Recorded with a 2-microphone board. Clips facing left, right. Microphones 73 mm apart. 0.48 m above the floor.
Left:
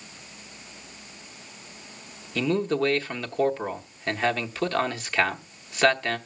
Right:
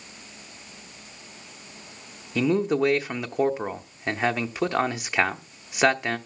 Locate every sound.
2.4 s a man speaking: 15° right (ahead or behind), 0.8 m